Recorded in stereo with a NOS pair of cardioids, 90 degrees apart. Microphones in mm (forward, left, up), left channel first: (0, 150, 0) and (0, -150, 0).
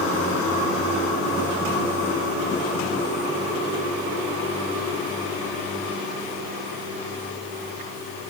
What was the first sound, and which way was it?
Only background noise.